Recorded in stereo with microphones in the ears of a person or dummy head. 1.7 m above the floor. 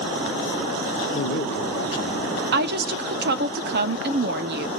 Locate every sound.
1.1 s a man speaking: 65° left (ahead or behind), 0.7 m
2.5 s a woman speaking: 60° right (ahead or behind), 0.6 m